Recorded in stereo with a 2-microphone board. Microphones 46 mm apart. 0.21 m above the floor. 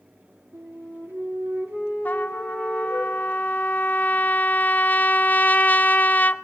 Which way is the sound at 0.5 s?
70° right (ahead or behind).